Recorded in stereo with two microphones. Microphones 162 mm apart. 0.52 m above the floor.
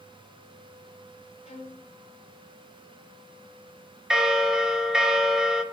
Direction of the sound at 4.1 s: 5° right (ahead or behind).